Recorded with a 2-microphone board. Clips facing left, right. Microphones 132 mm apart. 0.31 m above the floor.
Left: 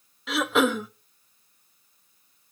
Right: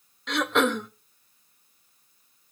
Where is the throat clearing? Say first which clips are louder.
Left 1 dB; 5° left (ahead or behind), 0.6 m.